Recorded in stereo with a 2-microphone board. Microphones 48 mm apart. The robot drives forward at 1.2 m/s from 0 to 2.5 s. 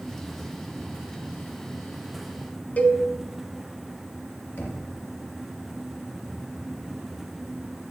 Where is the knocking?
50° left (ahead or behind), 3 m.